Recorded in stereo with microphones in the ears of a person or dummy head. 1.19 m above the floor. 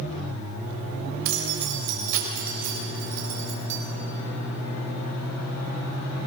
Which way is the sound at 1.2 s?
65° right (ahead or behind).